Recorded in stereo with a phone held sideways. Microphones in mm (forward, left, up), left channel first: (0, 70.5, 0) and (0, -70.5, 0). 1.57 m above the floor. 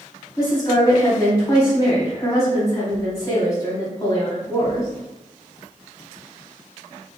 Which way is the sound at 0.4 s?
30° left (ahead or behind).